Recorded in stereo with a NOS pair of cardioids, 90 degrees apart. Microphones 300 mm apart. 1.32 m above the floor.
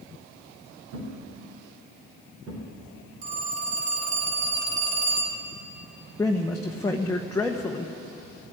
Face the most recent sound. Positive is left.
turn(degrees=10)